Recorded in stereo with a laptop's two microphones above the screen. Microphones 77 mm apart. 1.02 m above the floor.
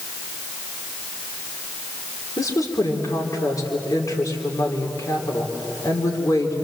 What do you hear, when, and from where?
2.4 s a woman speaking: 50° left (ahead or behind), 3 m